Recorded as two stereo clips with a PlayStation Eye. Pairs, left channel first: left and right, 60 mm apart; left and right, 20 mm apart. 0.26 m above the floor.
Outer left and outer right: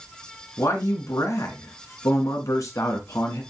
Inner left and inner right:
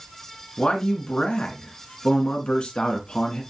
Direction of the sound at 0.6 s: 70° left (ahead or behind).